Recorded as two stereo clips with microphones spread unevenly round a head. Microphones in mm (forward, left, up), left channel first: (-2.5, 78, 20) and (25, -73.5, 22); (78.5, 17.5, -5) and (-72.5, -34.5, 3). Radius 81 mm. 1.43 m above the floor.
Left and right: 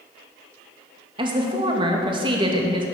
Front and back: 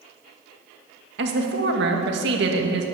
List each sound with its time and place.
1.2 s a woman speaking: 140° right, 2.5 m